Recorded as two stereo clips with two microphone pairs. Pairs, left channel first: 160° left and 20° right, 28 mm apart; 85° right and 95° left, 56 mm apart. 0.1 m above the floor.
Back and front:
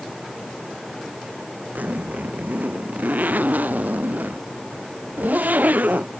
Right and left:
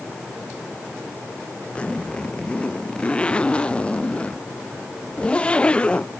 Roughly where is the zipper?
Ahead.